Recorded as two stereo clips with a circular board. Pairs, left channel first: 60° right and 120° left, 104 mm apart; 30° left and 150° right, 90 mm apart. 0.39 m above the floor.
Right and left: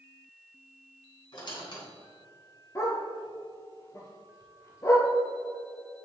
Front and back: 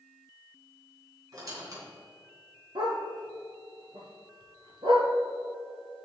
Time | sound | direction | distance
1.3 | a squeak | 100° right | 3 m
2.8 | a dog barking | 120° right | 2 m